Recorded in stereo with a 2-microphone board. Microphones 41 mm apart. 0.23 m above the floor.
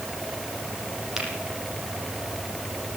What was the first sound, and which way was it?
A finger snap, 10° right (ahead or behind).